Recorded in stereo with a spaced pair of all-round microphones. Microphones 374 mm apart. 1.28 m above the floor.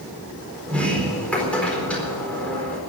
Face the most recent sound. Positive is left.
turn(degrees=5)  # may be behind; listen again after turning